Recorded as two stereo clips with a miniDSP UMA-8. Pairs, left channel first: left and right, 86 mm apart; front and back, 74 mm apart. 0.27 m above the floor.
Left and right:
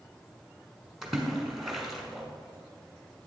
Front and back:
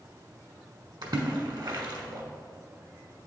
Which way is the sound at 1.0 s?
175° right.